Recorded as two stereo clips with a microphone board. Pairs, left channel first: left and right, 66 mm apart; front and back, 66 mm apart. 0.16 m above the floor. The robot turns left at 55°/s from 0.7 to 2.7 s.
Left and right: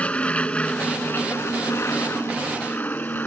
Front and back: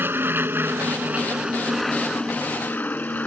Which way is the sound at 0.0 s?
150° left.